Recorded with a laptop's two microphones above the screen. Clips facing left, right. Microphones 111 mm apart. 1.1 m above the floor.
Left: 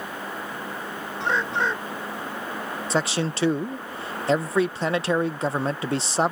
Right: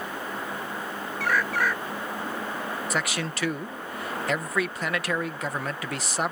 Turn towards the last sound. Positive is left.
turn(degrees=25)  # may be behind; listen again after turning